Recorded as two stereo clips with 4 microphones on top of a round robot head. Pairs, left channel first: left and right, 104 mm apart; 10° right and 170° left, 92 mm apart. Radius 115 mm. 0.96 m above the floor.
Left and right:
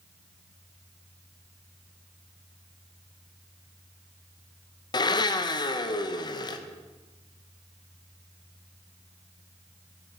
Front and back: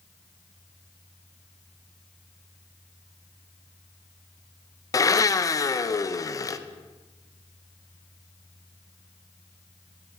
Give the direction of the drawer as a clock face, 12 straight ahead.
No drawer in this recording.